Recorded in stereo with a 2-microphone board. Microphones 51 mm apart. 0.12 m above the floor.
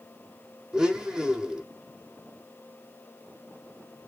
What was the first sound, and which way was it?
A blender, 15° right (ahead or behind).